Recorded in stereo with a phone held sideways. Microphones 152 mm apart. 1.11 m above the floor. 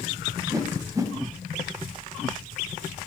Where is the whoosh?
20° right (ahead or behind), 0.7 m.